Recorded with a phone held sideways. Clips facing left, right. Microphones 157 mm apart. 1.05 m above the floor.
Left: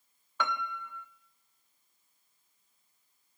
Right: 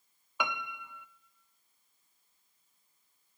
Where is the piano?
10° right (ahead or behind), 0.6 m.